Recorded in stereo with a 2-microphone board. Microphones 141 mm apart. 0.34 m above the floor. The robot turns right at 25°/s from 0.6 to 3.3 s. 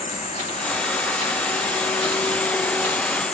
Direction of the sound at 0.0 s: 115° left.